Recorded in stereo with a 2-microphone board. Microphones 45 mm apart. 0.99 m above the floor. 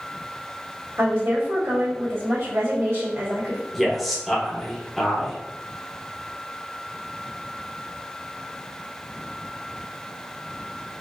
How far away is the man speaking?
About 0.9 m.